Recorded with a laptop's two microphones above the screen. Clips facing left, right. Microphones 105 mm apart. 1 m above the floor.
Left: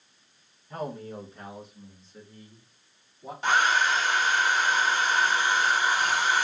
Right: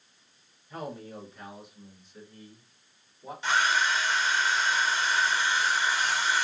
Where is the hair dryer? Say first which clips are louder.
Left 3 dB; 50° left (ahead or behind), 1.1 m.